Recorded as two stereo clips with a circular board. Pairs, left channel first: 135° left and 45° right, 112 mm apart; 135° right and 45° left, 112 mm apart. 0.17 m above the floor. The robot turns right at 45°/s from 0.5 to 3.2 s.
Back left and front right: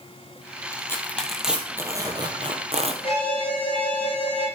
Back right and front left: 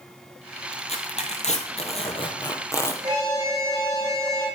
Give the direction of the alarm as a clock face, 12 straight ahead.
9 o'clock.